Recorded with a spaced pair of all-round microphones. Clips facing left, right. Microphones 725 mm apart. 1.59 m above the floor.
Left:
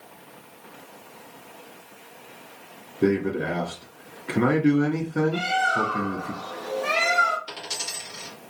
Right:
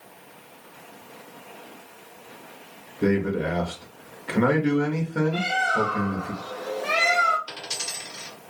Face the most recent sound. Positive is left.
turn(degrees=20)  # may be behind; listen again after turning